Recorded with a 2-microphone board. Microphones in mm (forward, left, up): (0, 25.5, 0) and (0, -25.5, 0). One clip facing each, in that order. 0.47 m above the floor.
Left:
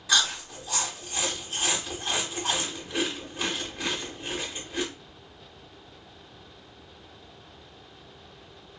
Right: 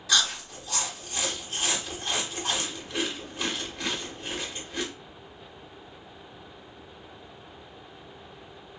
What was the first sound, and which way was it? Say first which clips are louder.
Chewing: left 1 dB; 10° left (ahead or behind).